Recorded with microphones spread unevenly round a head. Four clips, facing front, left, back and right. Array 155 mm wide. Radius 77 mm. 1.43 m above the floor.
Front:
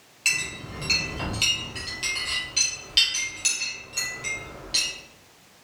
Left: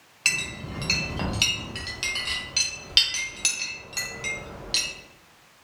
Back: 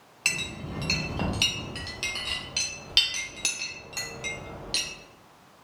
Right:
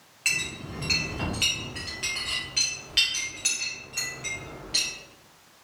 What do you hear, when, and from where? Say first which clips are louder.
0.2 s a clink: left 2 dB, front 1 dB; 145° left, 0.8 m